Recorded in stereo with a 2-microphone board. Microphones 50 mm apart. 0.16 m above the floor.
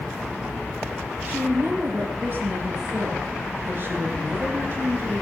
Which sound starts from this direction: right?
A woman speaking, at 1.2 s.